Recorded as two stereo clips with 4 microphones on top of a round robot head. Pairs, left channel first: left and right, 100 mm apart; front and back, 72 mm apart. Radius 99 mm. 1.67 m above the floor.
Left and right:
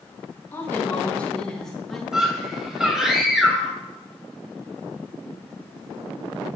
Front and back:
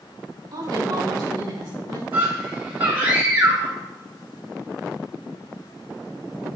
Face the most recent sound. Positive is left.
turn(degrees=-170)